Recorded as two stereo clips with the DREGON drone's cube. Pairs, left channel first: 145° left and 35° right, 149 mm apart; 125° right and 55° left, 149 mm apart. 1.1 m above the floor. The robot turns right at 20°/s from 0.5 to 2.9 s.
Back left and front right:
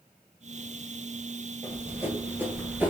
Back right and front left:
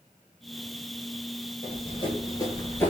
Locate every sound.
1.6 s running footsteps: 110° right, 1.4 m; by 2.9 s 80° right, 1.0 m